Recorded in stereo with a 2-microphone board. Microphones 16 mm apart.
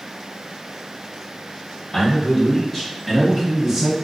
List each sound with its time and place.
1.9 s a man speaking: 30° left (ahead or behind), 1.9 m; by 3.9 s 10° right (ahead or behind), 2 m